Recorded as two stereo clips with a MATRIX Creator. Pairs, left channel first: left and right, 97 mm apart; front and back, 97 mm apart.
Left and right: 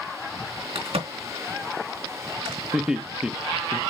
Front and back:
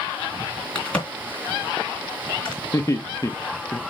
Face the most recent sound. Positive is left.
turn(degrees=-15)